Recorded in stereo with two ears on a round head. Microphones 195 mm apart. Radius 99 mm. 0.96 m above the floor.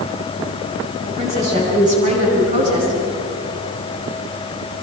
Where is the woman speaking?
35° right (ahead or behind), 9.5 m; by 3.0 s 40° right (ahead or behind), 11 m.